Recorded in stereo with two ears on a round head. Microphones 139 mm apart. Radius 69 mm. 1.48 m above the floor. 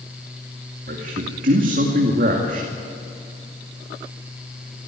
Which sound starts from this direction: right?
A man speaking, at 0.9 s.